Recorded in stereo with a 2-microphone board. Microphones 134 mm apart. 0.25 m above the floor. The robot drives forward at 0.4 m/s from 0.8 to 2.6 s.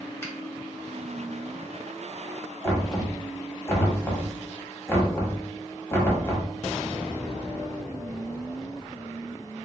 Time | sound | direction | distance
0.2 | a finger snap | 20° left (ahead or behind) | 0.9 m
2.6 | knocking | 20° left (ahead or behind) | 0.8 m